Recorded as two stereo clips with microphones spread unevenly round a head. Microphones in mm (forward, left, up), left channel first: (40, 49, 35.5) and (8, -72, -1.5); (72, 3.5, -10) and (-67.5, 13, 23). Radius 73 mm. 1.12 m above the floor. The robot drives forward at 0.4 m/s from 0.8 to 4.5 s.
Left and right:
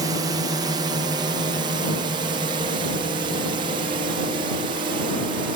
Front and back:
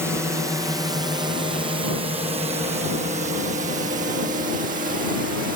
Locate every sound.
0.0 s a drone: 105° right; by 5.6 s 145° right